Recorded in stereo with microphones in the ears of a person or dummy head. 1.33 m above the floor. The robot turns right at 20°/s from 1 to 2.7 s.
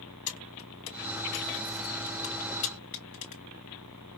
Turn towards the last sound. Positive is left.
turn(degrees=45)  # may be behind; listen again after turning